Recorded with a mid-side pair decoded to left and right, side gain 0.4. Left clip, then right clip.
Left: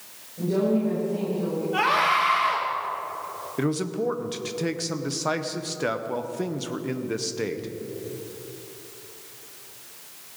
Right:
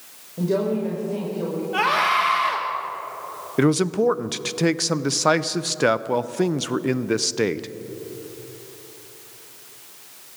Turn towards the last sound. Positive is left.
turn(degrees=-55)